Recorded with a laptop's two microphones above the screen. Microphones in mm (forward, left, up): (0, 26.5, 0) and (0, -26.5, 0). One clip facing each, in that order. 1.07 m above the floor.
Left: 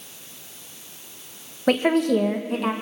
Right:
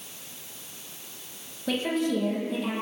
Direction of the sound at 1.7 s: 55° left (ahead or behind).